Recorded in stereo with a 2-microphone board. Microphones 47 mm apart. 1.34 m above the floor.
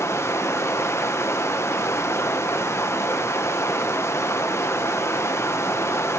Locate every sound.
0.0 s running water: 65° left (ahead or behind), 0.8 m